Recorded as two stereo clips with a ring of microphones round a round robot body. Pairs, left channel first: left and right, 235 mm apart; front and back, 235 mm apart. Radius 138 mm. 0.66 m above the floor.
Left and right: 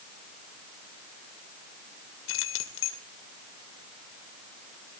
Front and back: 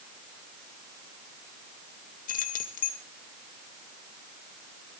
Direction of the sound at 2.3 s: 55° left.